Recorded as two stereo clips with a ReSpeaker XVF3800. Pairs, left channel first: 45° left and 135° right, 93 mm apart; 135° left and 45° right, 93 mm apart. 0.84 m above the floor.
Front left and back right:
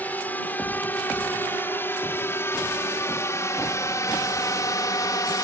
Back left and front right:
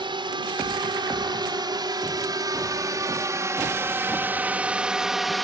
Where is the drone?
25° right; by 5.4 s 45° left.